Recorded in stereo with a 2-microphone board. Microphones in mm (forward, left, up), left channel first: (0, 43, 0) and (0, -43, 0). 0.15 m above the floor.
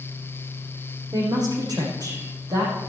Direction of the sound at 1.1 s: 50° right (ahead or behind).